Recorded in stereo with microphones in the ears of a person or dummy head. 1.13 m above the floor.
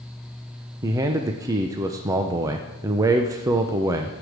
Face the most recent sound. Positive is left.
turn(degrees=-15)  # may be behind; listen again after turning